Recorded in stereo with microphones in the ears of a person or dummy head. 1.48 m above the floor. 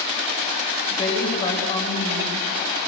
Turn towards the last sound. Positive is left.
turn(degrees=35)  # may be behind; listen again after turning